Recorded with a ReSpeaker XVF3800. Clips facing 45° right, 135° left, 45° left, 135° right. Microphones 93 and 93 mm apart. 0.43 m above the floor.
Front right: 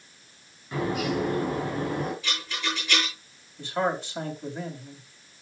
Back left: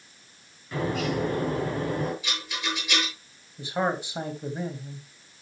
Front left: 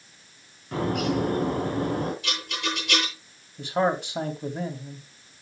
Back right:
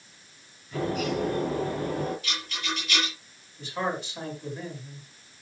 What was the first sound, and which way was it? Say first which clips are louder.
A bird: even, front left 3 dB; 35° left.